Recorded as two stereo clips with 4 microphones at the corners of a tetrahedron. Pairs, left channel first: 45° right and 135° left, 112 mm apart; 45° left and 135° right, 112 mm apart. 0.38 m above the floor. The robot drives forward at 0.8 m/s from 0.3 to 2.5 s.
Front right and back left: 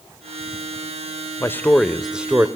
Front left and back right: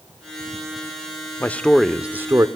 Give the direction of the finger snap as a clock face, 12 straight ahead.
No finger snap in this recording.